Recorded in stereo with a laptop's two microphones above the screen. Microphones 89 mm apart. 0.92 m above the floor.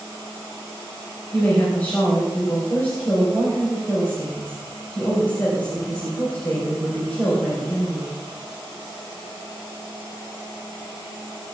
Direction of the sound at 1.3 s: 20° left (ahead or behind).